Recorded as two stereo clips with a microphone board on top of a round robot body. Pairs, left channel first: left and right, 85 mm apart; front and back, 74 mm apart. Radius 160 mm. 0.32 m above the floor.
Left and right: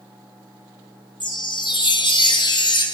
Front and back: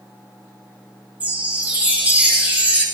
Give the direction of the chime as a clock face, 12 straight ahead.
8 o'clock.